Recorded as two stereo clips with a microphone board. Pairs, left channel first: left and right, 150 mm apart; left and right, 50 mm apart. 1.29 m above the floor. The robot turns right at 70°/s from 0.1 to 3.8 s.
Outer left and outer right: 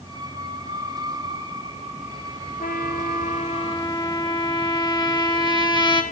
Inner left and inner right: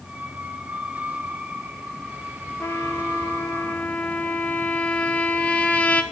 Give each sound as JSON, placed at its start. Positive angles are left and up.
{"t": 2.6, "sound": "a trumpet", "azimuth_deg": 65, "distance_m": 1.8}